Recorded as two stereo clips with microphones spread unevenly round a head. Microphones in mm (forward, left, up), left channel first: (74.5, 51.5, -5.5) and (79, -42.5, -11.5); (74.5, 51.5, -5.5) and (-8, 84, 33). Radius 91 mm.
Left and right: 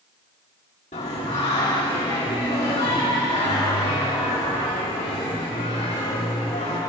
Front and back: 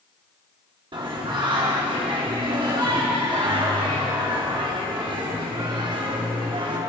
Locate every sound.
0.9 s singing: 125° left, 3 m